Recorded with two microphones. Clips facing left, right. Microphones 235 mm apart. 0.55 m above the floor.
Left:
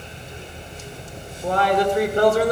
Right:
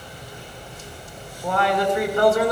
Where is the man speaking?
30° left (ahead or behind), 2 m.